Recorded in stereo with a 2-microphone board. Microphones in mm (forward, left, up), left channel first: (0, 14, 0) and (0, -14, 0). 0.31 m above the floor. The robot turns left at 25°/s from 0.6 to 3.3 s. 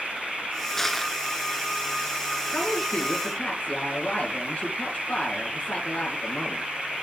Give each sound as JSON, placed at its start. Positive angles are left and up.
{"t": 0.8, "sound": "crushing", "side_deg": 10, "distance_m": 1.4}
{"t": 2.5, "sound": "a woman speaking", "side_deg": 50, "distance_m": 4.0}